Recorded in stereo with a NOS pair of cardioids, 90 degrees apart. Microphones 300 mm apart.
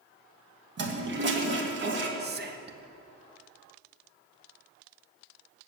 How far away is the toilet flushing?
About 1.5 m.